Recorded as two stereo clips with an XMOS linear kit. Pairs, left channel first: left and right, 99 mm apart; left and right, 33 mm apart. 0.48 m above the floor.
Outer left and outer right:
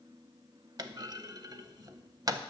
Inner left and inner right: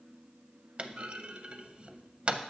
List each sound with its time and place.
0.8 s a clunk: 40° right (ahead or behind), 0.5 m